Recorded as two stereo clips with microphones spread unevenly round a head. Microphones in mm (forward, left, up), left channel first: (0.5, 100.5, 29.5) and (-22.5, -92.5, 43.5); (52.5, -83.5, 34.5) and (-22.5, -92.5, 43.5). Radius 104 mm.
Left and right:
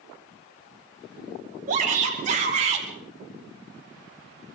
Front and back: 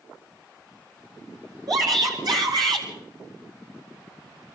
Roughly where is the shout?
Behind right.